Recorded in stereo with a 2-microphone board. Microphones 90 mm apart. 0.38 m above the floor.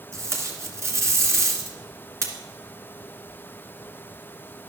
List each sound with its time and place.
0.1 s tape being pulled: 30° right (ahead or behind), 2 m